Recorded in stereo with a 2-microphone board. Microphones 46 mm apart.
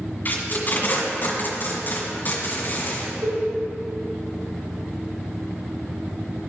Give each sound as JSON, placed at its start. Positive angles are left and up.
{"t": 0.2, "sound": "tape being pulled", "side_deg": 40, "distance_m": 1.8}
{"t": 3.2, "sound": "a cowbell", "side_deg": -65, "distance_m": 1.8}